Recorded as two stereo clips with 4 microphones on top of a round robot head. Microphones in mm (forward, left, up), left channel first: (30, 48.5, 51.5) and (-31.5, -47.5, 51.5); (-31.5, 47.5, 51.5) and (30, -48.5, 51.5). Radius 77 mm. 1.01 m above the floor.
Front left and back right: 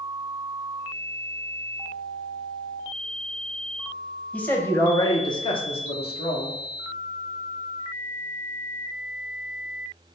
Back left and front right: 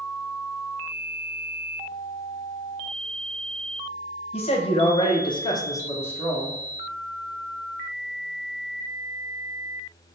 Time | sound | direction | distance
4.3 | a man speaking | 135° left | 1.1 m